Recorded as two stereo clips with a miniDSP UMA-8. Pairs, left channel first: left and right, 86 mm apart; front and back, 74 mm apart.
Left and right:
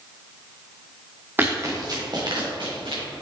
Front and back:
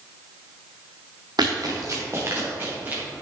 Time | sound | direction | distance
1.4 | running footsteps | 155° right | 1.6 m